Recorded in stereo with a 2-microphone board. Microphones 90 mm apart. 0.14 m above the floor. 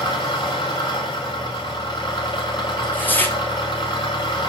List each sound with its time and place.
0.0 s an engine running: 50° left (ahead or behind), 7.5 m
2.8 s tearing paper: 20° left (ahead or behind), 3 m